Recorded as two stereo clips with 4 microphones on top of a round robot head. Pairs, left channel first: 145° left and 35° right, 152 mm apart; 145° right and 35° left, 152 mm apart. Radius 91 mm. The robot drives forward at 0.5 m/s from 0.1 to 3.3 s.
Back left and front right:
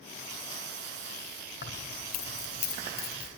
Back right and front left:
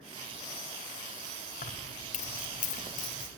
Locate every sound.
1.6 s keys jangling: 170° left, 1.4 m; by 3.3 s 175° left, 2.5 m